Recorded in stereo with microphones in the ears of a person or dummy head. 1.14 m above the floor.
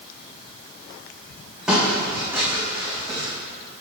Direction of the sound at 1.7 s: 5° right (ahead or behind).